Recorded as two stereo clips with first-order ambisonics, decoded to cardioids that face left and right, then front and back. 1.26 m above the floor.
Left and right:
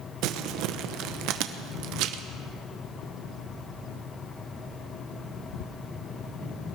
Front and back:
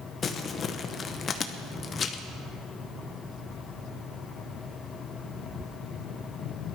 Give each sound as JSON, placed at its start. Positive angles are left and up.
{"t": 0.2, "sound": "crumpling", "azimuth_deg": -65, "distance_m": 0.8}